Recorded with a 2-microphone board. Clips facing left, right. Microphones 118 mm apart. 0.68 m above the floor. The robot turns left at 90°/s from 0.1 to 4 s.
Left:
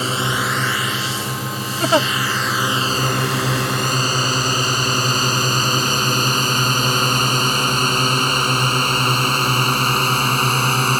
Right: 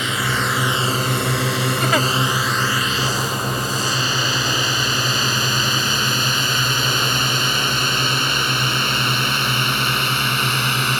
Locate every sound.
0.0 s a drone: 35° left (ahead or behind); by 11.0 s 40° left (ahead or behind)
1.8 s a giggle: 40° left (ahead or behind); by 2.1 s 15° left (ahead or behind)